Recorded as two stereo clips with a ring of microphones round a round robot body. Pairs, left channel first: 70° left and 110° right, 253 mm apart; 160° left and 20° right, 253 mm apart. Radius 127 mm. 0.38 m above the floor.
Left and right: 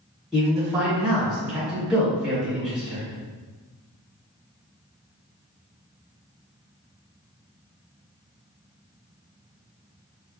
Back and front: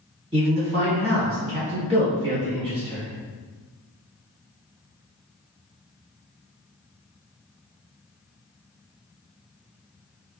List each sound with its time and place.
0.3 s a man speaking: 30° right, 1.2 m